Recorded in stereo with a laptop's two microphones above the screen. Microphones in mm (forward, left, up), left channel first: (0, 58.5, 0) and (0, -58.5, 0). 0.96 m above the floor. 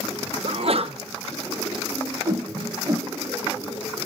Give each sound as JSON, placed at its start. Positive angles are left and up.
{"t": 0.4, "sound": "a sneeze", "side_deg": -55, "distance_m": 0.8}
{"t": 2.2, "sound": "a whoosh", "side_deg": -30, "distance_m": 1.2}